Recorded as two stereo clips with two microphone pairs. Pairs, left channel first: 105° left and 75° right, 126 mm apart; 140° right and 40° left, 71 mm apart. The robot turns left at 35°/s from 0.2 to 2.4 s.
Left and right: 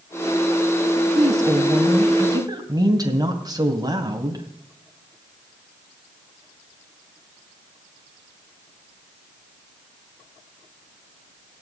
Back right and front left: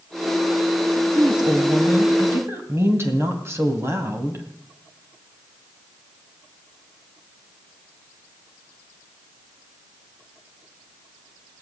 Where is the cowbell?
I don't hear a cowbell.